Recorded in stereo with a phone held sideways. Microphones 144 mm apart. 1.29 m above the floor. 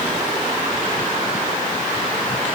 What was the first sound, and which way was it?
Only background noise.